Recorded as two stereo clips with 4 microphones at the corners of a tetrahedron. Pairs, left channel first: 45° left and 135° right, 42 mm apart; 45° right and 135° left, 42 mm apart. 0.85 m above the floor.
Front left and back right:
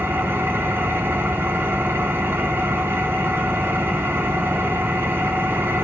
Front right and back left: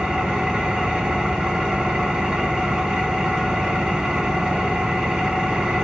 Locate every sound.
0.0 s an engine running: 150° right, 2 m